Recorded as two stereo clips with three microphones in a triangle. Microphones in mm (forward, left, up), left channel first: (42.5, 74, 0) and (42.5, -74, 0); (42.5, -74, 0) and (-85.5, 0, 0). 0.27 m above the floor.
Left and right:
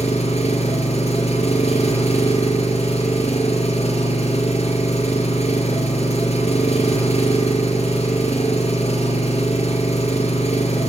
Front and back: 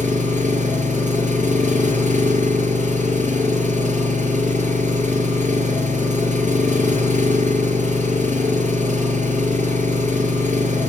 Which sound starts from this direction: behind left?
An engine running, at 0.0 s.